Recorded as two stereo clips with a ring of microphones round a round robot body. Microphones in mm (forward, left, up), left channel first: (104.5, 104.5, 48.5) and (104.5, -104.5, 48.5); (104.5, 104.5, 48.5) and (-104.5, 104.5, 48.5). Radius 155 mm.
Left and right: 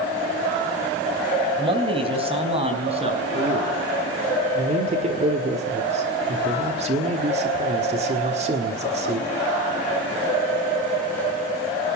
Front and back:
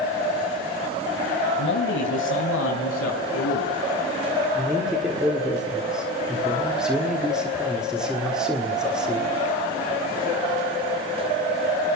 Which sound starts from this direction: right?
A man speaking, at 4.5 s.